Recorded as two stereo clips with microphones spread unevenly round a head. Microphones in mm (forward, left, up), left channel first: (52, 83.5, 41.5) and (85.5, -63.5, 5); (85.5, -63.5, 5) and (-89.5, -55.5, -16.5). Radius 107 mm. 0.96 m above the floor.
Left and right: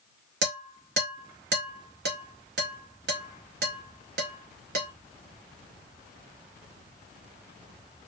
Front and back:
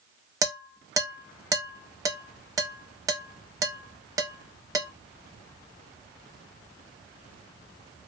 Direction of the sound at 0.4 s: 110° right.